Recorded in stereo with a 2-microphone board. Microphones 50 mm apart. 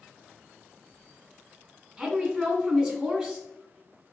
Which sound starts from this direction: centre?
A woman speaking, at 2.0 s.